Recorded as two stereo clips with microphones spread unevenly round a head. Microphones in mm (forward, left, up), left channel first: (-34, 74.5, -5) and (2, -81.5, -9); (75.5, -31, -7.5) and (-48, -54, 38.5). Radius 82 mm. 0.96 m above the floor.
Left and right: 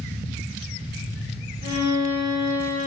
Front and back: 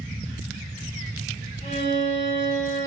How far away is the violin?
About 1.8 m.